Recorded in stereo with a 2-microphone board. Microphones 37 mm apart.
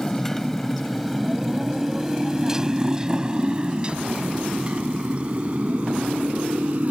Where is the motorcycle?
15° left (ahead or behind); by 6.9 s 45° right (ahead or behind).